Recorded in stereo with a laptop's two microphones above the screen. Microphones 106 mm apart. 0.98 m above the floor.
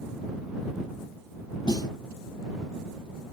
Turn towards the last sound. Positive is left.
turn(degrees=45)  # may be behind; listen again after turning